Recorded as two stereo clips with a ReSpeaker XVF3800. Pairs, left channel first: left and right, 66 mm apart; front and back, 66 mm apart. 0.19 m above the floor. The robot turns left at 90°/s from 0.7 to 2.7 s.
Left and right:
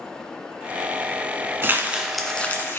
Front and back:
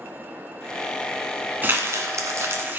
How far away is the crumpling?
About 1.4 m.